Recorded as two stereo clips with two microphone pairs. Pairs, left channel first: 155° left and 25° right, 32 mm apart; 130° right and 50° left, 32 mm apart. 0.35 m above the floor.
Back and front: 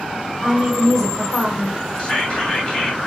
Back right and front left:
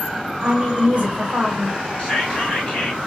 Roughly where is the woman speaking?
Left.